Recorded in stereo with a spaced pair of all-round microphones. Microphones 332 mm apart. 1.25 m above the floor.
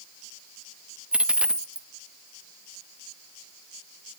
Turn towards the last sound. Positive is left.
turn(degrees=-5)  # may be behind; listen again after turning